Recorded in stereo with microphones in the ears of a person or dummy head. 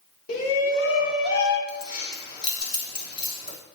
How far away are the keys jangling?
About 3.5 m.